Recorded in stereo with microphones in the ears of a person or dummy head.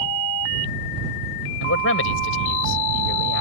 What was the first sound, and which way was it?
A man speaking, 85° left.